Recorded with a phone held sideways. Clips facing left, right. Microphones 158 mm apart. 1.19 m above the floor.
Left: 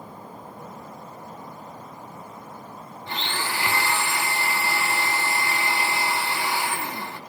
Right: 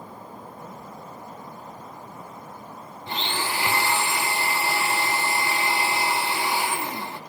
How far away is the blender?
About 0.9 m.